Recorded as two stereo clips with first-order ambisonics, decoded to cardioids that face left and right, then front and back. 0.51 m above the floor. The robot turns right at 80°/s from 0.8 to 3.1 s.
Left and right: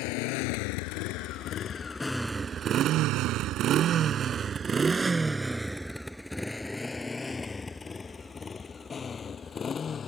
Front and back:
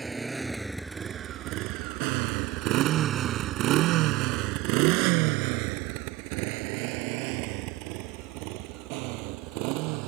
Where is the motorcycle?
100° left; by 10.1 s 160° left.